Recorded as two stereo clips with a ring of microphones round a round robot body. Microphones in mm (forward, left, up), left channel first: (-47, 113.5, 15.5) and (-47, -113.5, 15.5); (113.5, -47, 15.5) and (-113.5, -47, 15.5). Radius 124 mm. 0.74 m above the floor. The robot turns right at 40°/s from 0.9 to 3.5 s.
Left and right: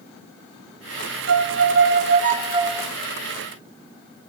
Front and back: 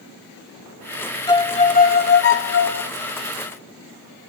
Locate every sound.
1.3 s a violin: 70° right, 1.5 m; by 2.9 s 5° right, 1.5 m